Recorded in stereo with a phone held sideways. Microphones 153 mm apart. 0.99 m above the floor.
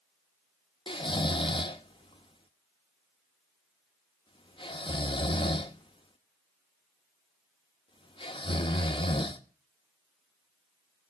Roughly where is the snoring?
Left.